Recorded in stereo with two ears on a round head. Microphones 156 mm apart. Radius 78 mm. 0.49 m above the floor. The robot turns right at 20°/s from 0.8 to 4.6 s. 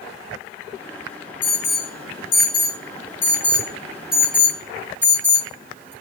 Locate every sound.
1.4 s an alarm: 45° left (ahead or behind), 5.5 m; by 5.9 s 20° right (ahead or behind), 5.5 m